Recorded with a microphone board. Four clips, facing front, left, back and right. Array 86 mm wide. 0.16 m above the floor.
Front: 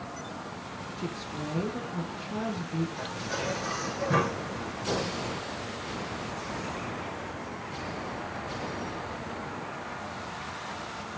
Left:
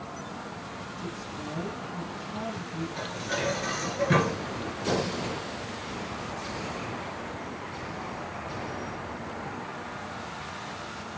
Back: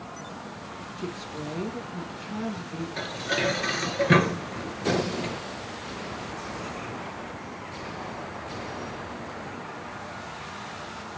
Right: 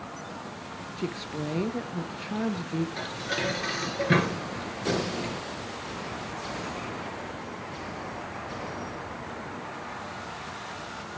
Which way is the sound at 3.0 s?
165° right.